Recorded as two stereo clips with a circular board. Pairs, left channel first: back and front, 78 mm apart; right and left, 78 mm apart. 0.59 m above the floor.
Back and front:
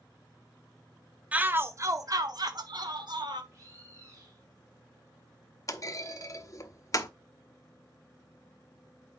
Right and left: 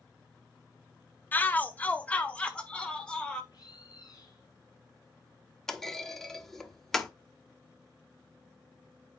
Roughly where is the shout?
Ahead right.